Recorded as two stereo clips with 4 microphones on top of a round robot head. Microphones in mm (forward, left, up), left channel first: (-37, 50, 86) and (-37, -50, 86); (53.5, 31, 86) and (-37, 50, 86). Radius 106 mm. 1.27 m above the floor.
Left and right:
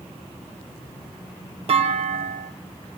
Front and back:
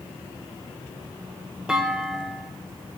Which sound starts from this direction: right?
A clunk, at 1.7 s.